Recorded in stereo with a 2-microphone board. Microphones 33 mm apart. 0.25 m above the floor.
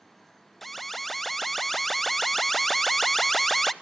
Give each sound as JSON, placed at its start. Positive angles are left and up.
{"t": 0.6, "sound": "an alarm", "side_deg": 5, "distance_m": 0.6}